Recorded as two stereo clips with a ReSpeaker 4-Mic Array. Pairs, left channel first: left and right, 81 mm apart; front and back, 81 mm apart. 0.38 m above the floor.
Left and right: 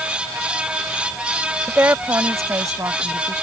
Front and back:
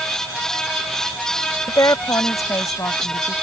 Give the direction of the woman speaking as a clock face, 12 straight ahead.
1 o'clock.